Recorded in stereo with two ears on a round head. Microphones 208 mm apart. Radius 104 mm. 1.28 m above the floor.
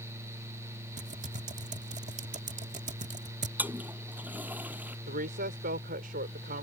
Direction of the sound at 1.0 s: 30° right (ahead or behind).